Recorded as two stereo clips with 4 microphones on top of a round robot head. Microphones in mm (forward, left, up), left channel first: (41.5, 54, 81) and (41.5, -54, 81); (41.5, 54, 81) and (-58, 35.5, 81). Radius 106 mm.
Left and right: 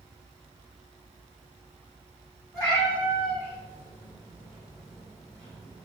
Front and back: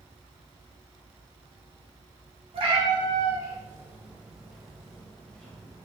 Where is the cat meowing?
160° left, 2 m; by 5.9 s 85° left, 3 m.